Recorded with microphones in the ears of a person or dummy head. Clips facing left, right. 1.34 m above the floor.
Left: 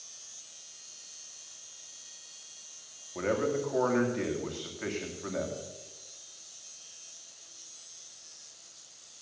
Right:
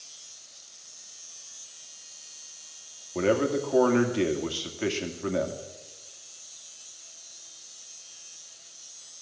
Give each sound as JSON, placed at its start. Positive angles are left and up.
{"t": 3.1, "sound": "a man speaking", "side_deg": -50, "distance_m": 2.5}